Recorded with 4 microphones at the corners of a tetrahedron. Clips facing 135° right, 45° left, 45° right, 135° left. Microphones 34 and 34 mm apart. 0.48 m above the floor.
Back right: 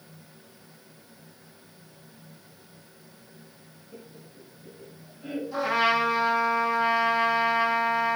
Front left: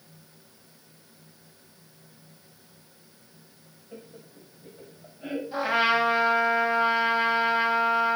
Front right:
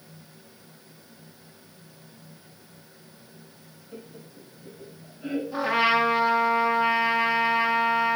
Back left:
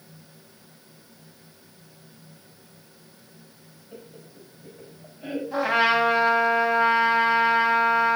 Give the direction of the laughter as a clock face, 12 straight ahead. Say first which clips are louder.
Front left 2 dB, front right 1 dB; 10 o'clock.